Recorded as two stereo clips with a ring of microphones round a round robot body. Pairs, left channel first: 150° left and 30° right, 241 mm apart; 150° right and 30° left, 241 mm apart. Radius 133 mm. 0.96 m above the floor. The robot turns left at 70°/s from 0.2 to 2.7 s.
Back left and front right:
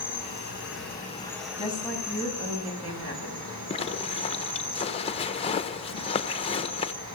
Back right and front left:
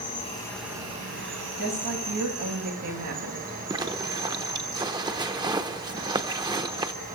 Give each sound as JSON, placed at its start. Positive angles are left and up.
{"t": 0.0, "sound": "an insect", "azimuth_deg": 150, "distance_m": 6.0}
{"t": 1.6, "sound": "a woman speaking", "azimuth_deg": 85, "distance_m": 8.5}
{"t": 3.7, "sound": "a zipper", "azimuth_deg": 95, "distance_m": 1.1}